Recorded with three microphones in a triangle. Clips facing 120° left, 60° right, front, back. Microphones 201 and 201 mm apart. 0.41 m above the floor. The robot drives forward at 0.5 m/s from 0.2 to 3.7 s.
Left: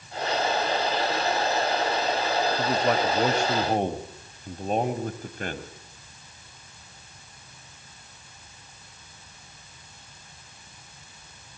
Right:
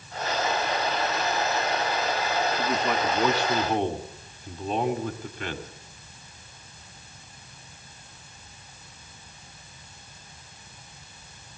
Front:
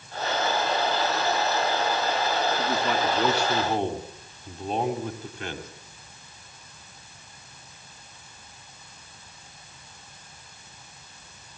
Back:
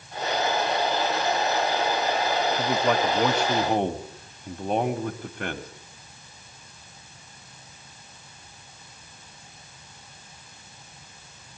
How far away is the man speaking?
About 2 m.